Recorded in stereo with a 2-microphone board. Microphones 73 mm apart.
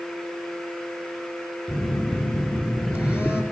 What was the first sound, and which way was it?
A phone buzzing, 35° left (ahead or behind).